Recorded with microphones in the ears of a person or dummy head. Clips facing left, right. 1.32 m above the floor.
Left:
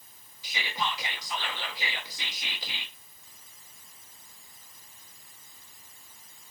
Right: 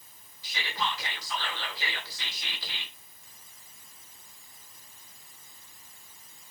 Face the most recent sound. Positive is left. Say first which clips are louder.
# even
turn(degrees=20)  # may be behind; listen again after turning